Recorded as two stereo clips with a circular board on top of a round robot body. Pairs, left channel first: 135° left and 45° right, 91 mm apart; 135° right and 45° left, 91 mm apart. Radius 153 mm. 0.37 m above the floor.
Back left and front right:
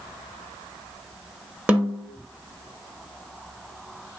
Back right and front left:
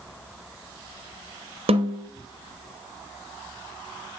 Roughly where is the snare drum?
Ahead left.